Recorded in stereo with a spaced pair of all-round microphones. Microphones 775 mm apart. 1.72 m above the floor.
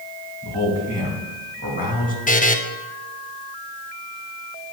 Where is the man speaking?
10° left (ahead or behind), 2.5 m.